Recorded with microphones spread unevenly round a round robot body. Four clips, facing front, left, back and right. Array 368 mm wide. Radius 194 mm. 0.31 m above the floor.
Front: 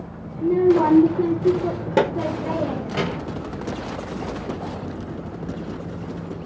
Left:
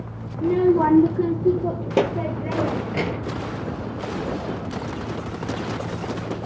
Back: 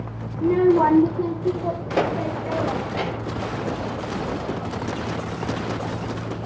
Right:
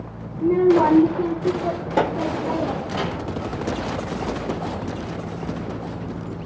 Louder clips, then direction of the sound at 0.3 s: Right 2 dB, even; 140° right.